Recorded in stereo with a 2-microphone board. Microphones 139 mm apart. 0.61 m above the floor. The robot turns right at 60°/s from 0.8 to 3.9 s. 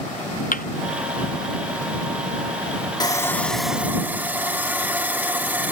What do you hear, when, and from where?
0.5 s a thud: 75° left (ahead or behind)
3.0 s sawing: 145° left; by 5.7 s 165° right